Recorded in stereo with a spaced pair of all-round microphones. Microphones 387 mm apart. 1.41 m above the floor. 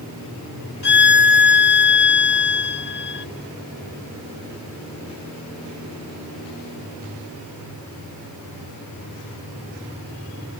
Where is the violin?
70° left (ahead or behind), 0.8 m.